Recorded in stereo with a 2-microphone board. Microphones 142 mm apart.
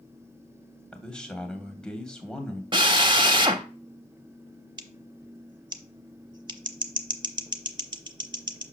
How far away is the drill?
About 0.7 m.